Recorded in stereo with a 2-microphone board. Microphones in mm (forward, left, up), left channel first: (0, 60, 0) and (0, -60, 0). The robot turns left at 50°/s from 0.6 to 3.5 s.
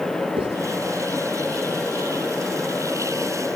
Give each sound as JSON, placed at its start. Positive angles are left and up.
{"t": 0.4, "sound": "writing", "side_deg": -45, "distance_m": 5.5}